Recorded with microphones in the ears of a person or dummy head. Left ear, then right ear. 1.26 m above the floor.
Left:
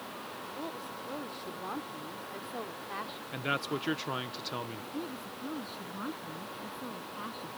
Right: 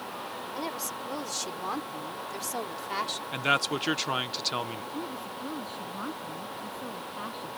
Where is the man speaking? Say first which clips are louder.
Right 7 dB; 25° right (ahead or behind).